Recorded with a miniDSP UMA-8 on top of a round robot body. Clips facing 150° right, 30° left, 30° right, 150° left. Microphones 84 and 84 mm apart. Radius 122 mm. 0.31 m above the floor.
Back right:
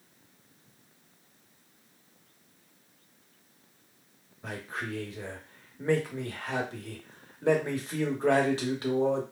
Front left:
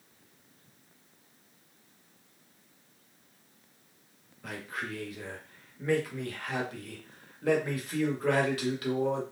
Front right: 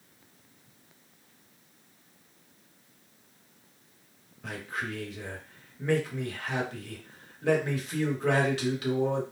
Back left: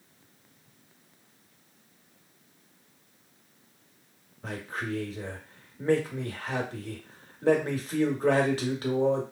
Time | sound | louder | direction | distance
4.4 | a man speaking | back right 1 dB, back left 1 dB | 170° left | 1.1 m